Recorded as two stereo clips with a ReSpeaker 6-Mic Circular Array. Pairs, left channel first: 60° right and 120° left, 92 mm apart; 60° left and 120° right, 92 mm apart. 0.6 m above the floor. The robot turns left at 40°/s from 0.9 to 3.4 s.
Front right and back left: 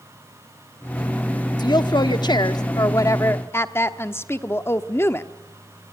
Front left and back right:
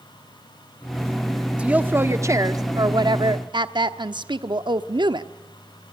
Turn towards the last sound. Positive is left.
turn(degrees=-115)